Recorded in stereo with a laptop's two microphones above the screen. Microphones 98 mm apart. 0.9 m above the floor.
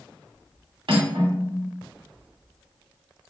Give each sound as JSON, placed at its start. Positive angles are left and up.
{"t": 0.9, "sound": "cutlery clinking", "side_deg": -75, "distance_m": 1.3}